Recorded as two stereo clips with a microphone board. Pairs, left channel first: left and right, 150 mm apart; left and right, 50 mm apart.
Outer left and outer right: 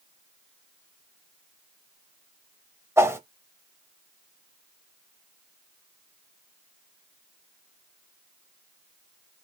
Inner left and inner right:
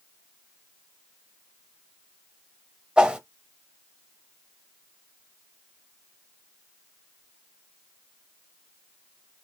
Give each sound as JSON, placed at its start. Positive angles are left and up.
{"t": 3.0, "sound": "a whoosh", "side_deg": -20, "distance_m": 0.6}